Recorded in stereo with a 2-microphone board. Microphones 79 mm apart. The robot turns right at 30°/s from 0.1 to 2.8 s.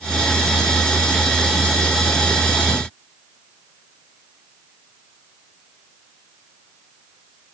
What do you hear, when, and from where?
Only background noise.